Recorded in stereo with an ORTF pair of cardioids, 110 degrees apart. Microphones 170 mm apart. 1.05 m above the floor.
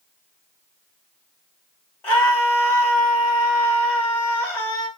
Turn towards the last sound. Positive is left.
turn(degrees=15)